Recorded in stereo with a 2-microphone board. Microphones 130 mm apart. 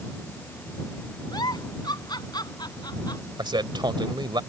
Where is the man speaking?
35° right (ahead or behind).